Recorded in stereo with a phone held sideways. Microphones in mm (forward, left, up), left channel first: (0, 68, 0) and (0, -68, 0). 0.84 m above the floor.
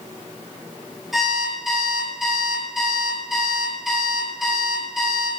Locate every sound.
1.1 s an alarm clock: centre (ahead or behind), 7 m